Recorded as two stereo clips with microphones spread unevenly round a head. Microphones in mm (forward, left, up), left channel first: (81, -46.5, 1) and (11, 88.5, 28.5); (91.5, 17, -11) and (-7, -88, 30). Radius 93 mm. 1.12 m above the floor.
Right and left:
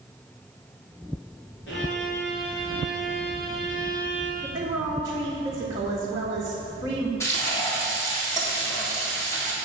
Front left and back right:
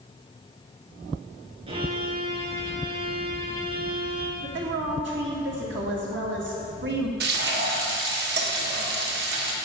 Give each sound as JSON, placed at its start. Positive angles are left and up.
{"t": 1.7, "sound": "a violin", "azimuth_deg": -95, "distance_m": 2.5}
{"t": 4.4, "sound": "a woman speaking", "azimuth_deg": -170, "distance_m": 1.4}
{"t": 7.2, "sound": "frying", "azimuth_deg": -140, "distance_m": 1.7}